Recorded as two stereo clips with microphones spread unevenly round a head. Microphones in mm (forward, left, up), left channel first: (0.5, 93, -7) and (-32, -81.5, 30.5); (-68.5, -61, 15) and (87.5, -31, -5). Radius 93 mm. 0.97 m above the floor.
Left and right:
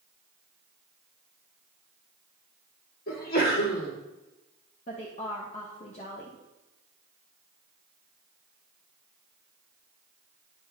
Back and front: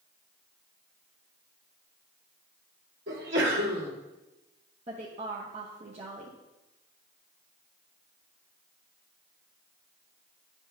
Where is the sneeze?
40° left, 2 m.